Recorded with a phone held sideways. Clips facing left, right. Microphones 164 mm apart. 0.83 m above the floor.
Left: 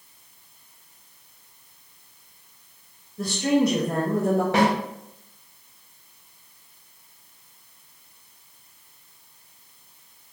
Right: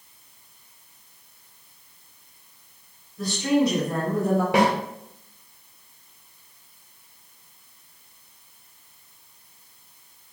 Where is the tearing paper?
No tearing paper in this recording.